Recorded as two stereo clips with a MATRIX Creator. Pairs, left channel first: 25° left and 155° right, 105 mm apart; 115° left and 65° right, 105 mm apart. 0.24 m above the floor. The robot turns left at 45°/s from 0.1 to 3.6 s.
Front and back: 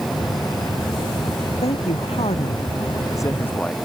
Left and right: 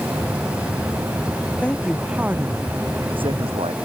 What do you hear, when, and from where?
1.6 s a man speaking: 35° left; by 3.7 s 55° right